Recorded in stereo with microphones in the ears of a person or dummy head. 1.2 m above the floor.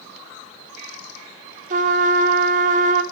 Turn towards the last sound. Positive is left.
turn(degrees=-40)  # may be behind; listen again after turning